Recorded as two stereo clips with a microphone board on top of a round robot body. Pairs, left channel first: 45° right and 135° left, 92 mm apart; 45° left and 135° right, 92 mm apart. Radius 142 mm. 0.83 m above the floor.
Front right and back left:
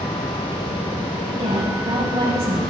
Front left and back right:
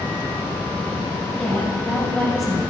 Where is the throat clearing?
I don't hear throat clearing.